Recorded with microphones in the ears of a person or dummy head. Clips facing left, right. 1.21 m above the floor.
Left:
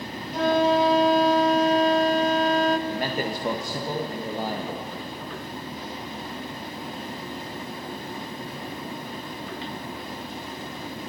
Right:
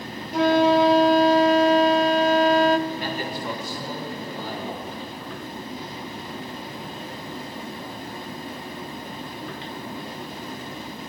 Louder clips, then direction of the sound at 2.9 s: Left 2 dB; 40° left (ahead or behind).